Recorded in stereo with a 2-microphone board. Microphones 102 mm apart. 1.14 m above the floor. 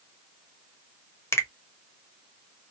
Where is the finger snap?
25° left (ahead or behind), 0.7 m.